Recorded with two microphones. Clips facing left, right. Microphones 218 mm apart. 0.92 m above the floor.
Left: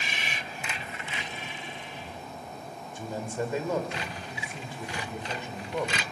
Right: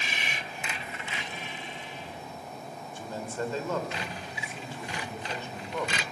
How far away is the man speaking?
About 3 m.